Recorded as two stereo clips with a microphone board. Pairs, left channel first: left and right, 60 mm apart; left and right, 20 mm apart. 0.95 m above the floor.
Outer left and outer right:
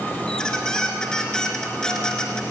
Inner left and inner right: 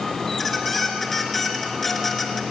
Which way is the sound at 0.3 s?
10° left (ahead or behind).